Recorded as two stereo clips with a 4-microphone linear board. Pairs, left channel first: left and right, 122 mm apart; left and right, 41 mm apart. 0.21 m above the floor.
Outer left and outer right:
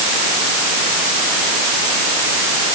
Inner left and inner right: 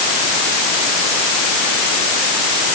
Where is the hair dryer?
I don't hear a hair dryer.